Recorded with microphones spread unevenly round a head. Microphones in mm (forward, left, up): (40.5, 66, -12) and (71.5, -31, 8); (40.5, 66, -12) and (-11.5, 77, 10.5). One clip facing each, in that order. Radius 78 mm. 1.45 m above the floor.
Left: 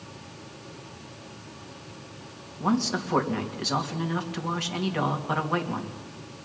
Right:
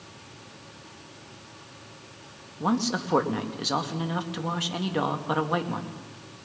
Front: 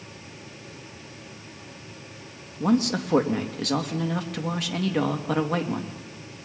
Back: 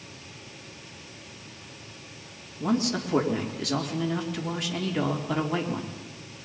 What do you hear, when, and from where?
2.6 s a man speaking: 5° left, 2.5 m